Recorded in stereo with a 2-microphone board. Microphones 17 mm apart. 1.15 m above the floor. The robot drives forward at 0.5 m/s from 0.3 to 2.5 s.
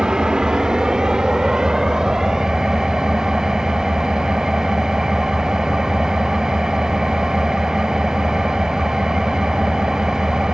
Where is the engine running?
45° right (ahead or behind), 1.0 m; by 10.5 s 25° right (ahead or behind), 1.8 m.